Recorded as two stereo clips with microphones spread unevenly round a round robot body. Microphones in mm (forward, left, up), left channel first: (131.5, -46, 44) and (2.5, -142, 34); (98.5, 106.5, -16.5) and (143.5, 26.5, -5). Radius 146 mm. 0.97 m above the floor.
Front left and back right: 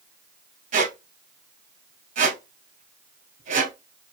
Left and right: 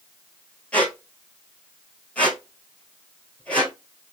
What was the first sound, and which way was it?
A squeak, 160° right.